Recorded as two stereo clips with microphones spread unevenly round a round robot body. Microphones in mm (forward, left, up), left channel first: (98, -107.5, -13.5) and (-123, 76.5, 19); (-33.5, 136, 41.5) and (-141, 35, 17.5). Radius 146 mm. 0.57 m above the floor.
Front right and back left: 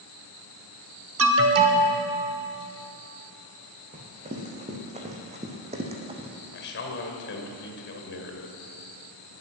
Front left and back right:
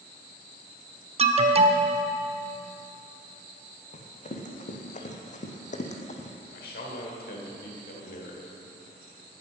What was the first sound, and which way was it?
An alarm, 175° right.